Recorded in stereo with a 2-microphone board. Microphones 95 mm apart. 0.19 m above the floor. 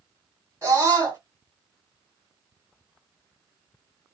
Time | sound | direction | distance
0.6 | a scream | 30° right (ahead or behind) | 1.9 m